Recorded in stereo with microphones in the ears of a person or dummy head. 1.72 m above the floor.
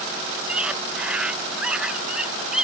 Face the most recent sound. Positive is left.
turn(degrees=-5)  # may be behind; listen again after turning